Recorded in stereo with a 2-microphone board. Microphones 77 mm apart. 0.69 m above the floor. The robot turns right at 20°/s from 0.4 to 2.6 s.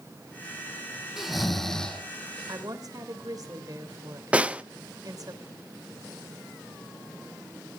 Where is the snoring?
5° right (ahead or behind), 3.5 m; by 2.0 s 10° left (ahead or behind), 3.5 m.